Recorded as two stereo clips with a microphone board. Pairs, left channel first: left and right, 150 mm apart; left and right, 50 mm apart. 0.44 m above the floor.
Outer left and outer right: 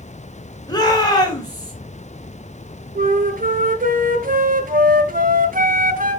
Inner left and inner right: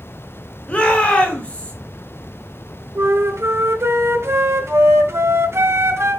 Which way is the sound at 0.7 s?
25° left (ahead or behind).